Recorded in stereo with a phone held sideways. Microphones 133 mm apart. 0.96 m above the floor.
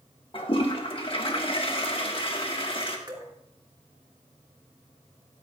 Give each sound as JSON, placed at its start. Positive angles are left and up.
{"t": 0.3, "sound": "a toilet flushing", "side_deg": 45, "distance_m": 1.4}
{"t": 3.1, "sound": "dripping", "side_deg": -35, "distance_m": 2.5}